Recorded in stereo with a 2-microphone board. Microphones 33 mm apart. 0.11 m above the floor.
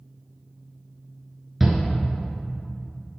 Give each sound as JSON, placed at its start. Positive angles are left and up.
{"t": 1.6, "sound": "a shout", "side_deg": -10, "distance_m": 1.2}